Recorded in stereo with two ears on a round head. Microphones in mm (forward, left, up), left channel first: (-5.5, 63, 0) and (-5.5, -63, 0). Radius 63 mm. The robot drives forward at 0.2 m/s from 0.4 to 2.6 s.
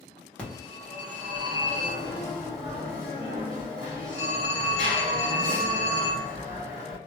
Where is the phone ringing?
10° left (ahead or behind), 0.9 m; by 7.0 s 5° left (ahead or behind), 1.3 m.